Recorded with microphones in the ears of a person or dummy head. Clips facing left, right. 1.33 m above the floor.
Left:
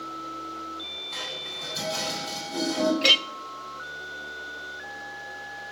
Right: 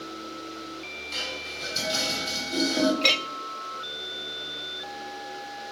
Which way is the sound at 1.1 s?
45° right (ahead or behind).